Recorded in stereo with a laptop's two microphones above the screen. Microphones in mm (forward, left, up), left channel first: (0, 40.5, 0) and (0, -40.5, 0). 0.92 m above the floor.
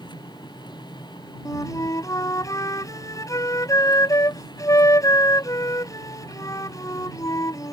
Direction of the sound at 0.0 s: 85° left.